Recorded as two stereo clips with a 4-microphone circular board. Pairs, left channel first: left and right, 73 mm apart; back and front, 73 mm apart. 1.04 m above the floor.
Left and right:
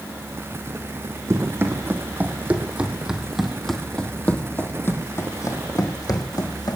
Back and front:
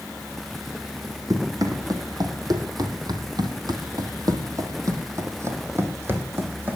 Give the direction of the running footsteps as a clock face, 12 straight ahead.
1 o'clock.